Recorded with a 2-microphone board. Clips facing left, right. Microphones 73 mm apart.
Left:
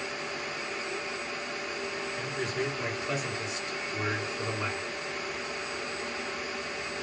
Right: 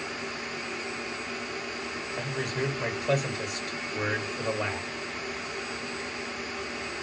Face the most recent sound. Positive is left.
turn(degrees=-60)  # may be behind; listen again after turning